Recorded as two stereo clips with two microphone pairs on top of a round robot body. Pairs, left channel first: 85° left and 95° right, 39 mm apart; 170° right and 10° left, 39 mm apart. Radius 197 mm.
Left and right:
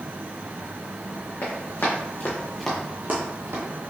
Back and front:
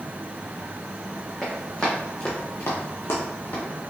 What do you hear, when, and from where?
1.4 s running footsteps: 110° left, 2 m; by 3.6 s 120° right, 1.4 m